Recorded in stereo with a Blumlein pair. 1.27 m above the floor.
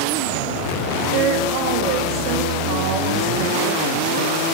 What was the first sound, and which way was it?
A woman speaking, 40° right.